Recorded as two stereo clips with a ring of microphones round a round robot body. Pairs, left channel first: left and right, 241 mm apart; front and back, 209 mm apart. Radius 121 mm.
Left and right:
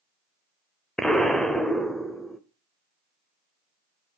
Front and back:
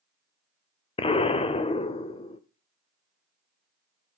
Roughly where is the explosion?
Ahead.